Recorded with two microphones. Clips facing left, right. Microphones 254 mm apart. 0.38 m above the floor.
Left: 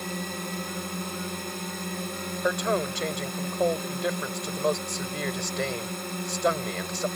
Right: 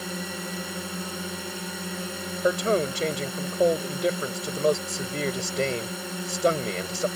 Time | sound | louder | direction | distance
0.0 | a drone | even | 5° right (ahead or behind) | ?
2.4 | a man speaking | right 4 dB | 30° right (ahead or behind) | ?